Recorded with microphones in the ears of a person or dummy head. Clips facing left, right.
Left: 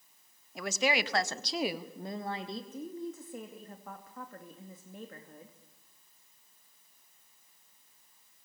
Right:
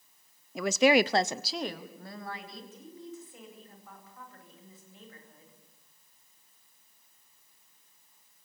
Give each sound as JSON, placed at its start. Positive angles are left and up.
{"t": 0.6, "sound": "a woman speaking", "side_deg": -80, "distance_m": 0.9}
{"t": 2.7, "sound": "a woman speaking", "side_deg": 50, "distance_m": 2.5}